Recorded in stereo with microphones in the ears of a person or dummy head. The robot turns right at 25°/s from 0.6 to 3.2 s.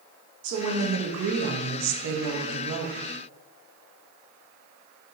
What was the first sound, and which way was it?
A woman speaking, 115° right.